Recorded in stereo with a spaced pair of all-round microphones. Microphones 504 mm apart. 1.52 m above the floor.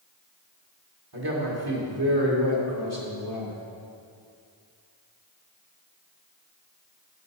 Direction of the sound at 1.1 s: 45° right (ahead or behind).